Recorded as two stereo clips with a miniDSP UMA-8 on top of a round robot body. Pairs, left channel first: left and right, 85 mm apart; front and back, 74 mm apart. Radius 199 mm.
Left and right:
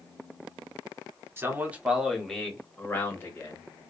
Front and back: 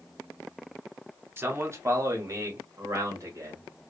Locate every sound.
1.4 s a man speaking: 140° right, 1.3 m; by 3.6 s 140° left, 1.7 m